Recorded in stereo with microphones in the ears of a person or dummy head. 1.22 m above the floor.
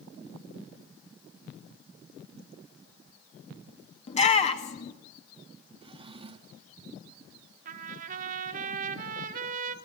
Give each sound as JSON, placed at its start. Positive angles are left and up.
{"t": 4.1, "sound": "a shout", "side_deg": 40, "distance_m": 1.5}
{"t": 5.8, "sound": "a drawer", "side_deg": -30, "distance_m": 0.9}
{"t": 7.7, "sound": "a trumpet", "side_deg": -50, "distance_m": 1.4}